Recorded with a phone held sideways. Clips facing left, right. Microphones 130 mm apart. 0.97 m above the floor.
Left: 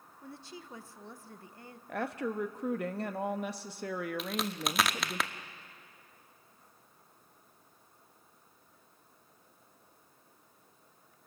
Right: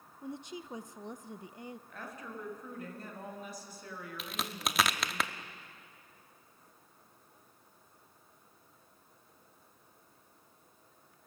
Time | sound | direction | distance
0.2 | a woman speaking | 20° right (ahead or behind) | 0.6 m
1.9 | a woman speaking | 75° left (ahead or behind) | 1.1 m
4.2 | a crack | centre (ahead or behind) | 0.8 m